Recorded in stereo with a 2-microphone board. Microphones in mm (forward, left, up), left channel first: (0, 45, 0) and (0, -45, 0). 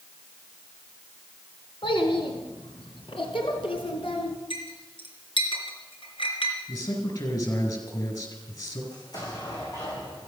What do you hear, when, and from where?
1.8 s a child speaking: 65° left (ahead or behind), 2.5 m; by 4.3 s 75° left (ahead or behind), 3 m
4.5 s a clink: 70° left (ahead or behind), 3 m
6.7 s a man speaking: 45° left (ahead or behind), 5.5 m
8.9 s an explosion: 45° left (ahead or behind), 7 m